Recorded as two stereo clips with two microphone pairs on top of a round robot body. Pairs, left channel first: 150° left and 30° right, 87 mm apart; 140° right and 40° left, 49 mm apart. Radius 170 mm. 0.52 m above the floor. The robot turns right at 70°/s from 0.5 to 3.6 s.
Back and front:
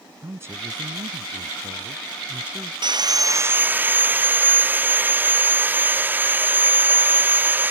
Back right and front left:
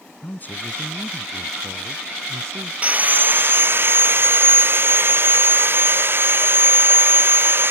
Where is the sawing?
15° right; by 7.7 s 40° left.